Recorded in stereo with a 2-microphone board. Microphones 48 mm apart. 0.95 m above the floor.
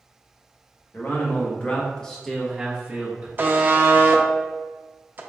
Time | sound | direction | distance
0.9 | a man speaking | 45° left (ahead or behind) | 1.1 m
3.4 | a buzzer | 40° right (ahead or behind) | 0.5 m